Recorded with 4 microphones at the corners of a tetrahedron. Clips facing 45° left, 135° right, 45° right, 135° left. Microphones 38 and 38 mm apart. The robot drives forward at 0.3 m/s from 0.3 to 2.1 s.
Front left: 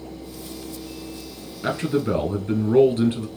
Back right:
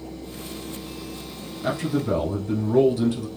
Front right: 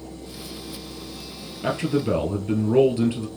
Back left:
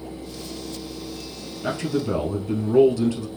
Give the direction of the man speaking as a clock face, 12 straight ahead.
12 o'clock.